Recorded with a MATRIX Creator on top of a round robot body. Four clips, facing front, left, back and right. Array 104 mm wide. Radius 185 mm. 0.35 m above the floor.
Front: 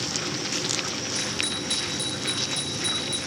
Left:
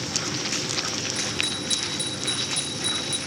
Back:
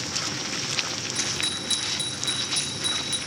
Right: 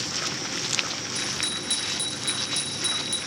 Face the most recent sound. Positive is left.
turn(degrees=-170)